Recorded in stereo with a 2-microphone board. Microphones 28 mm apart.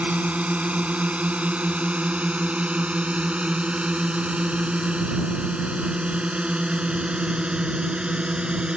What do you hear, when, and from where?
0.0 s a drone: 60° right (ahead or behind); by 8.8 s 35° right (ahead or behind)